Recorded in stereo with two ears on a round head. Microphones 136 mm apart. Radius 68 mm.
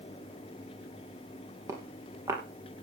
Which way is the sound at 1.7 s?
20° right (ahead or behind).